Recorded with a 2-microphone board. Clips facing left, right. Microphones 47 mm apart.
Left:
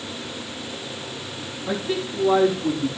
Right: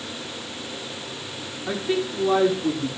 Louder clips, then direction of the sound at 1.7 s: Right 1 dB; 20° right (ahead or behind).